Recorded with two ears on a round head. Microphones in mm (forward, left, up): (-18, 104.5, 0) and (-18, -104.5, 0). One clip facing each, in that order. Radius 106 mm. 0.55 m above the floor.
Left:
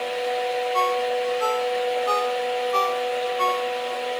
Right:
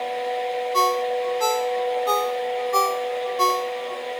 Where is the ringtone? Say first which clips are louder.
Right 2 dB; 60° right (ahead or behind).